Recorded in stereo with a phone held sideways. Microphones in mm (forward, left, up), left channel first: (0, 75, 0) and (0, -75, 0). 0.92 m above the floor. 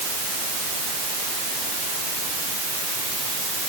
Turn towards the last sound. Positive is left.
No sound to turn to.